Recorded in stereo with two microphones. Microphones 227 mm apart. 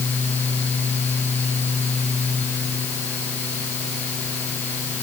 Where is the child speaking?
I don't hear a child speaking.